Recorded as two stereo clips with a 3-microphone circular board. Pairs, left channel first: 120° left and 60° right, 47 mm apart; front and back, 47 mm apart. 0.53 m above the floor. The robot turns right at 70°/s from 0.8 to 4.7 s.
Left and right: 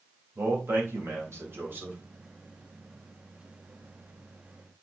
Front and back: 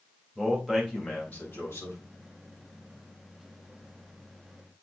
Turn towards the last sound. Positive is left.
turn(degrees=-170)